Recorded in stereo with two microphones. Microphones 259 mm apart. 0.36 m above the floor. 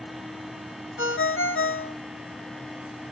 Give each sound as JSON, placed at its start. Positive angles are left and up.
{"t": 1.0, "sound": "a ringtone", "side_deg": 50, "distance_m": 0.5}